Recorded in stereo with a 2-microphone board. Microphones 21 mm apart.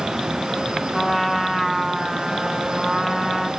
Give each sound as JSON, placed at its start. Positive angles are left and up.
{"t": 0.9, "sound": "a trumpet", "side_deg": -15, "distance_m": 0.9}